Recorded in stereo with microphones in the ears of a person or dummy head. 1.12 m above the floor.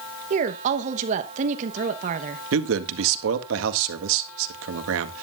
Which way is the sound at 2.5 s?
75° right (ahead or behind).